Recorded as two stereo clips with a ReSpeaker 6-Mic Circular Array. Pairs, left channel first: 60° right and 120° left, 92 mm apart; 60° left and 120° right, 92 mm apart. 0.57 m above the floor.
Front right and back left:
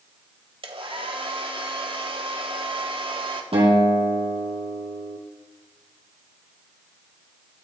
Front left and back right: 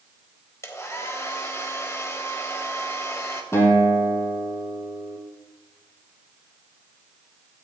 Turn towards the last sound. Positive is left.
turn(degrees=120)